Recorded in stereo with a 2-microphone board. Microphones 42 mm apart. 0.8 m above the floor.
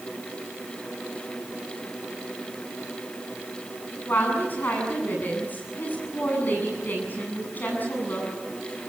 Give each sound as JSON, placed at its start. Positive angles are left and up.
{"t": 4.1, "sound": "a woman speaking", "side_deg": 45, "distance_m": 7.5}